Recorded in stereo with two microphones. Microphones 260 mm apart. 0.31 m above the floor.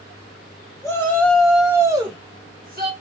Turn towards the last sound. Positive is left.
turn(degrees=-40)  # may be behind; listen again after turning